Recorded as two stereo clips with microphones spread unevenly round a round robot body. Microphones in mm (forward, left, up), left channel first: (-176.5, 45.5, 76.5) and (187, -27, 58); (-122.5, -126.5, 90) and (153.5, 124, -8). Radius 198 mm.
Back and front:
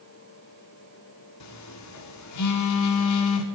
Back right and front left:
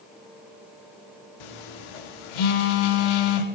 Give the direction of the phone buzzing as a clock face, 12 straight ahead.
5 o'clock.